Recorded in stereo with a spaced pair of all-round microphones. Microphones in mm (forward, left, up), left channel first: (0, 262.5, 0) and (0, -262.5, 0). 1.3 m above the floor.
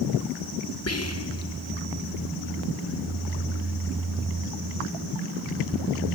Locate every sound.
0.9 s whispering: 30° left (ahead or behind), 1.1 m